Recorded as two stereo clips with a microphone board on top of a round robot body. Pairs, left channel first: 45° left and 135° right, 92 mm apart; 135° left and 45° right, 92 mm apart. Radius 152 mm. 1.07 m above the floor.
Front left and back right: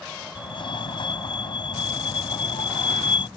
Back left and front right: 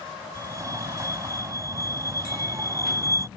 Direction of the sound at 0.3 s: 10° left.